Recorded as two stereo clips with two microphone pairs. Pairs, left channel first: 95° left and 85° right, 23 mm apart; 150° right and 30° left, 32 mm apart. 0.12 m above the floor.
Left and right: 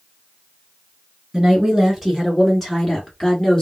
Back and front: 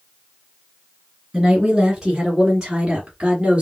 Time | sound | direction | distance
1.3 | a woman speaking | 35° right | 1.6 m